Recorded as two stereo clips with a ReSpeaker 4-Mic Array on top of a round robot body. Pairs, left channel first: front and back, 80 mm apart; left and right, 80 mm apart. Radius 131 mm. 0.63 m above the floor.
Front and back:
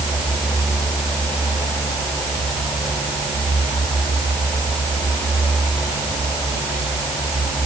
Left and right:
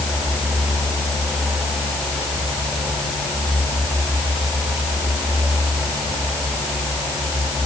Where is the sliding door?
I don't hear a sliding door.